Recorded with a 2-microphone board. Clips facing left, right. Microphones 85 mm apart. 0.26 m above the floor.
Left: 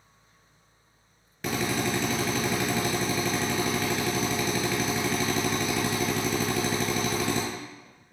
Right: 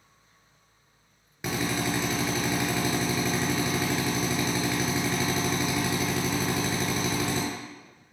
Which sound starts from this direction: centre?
A drill, at 1.4 s.